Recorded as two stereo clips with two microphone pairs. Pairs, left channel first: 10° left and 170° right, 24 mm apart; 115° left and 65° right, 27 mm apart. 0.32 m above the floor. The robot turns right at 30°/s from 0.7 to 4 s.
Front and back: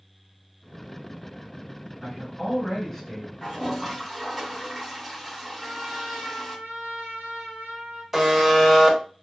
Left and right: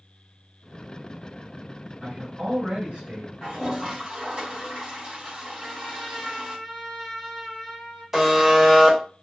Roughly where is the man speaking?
Right.